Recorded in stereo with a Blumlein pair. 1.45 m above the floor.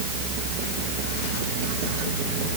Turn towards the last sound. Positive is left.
No sound to turn to.